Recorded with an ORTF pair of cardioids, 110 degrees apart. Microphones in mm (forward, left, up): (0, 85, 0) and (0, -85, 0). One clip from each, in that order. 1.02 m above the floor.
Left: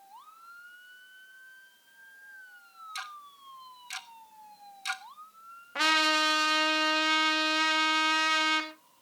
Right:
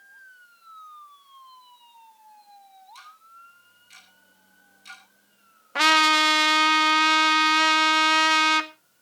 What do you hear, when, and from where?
3.0 s ticking: 65° left, 1.4 m
5.8 s a trumpet: 40° right, 1.5 m